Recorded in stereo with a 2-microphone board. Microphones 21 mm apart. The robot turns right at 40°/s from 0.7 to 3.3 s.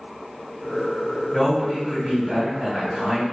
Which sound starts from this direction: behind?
A man speaking, at 1.3 s.